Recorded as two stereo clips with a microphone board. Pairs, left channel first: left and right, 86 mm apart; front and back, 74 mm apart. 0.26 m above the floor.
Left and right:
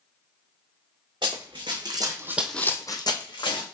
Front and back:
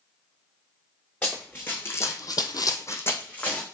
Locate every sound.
1.2 s running footsteps: 70° right, 1.4 m; by 3.6 s 70° left, 1.3 m